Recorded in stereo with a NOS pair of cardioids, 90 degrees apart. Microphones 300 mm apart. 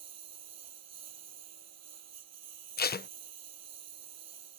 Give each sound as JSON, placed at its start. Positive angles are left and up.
{"t": 0.0, "sound": "a lawn mower", "azimuth_deg": -55}
{"t": 2.8, "sound": "tape being pulled", "azimuth_deg": 30}